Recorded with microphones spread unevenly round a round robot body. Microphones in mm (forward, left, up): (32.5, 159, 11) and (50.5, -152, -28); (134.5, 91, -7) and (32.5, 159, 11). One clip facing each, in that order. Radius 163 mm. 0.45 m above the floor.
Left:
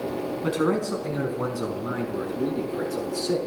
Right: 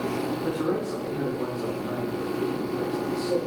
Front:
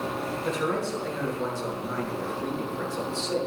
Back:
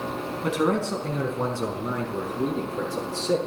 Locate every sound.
0.4 s a man speaking: 145° left, 5 m; by 3.4 s 130° left, 6.5 m